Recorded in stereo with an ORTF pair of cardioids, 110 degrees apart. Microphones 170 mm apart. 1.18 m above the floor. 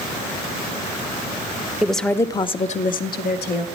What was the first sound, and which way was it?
A woman speaking, 5° right.